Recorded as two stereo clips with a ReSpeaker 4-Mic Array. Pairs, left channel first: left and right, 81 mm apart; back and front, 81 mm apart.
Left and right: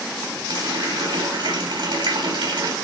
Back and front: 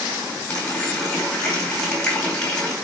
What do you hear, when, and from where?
0.5 s a running tap: 100° right, 4 m